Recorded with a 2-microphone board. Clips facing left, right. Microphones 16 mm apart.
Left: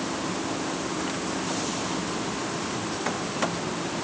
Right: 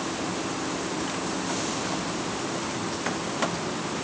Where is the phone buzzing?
I don't hear a phone buzzing.